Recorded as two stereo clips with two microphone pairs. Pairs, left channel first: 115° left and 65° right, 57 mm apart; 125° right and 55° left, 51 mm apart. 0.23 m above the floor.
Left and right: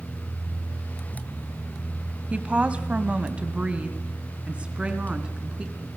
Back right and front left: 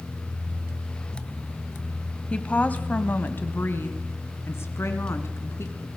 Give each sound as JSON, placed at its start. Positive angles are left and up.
{"t": 2.3, "sound": "a woman speaking", "azimuth_deg": -100, "distance_m": 1.5}